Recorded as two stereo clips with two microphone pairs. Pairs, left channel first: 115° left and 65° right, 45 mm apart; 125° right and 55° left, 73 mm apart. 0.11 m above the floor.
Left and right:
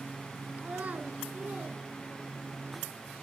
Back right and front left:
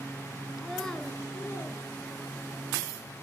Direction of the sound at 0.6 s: 30° right.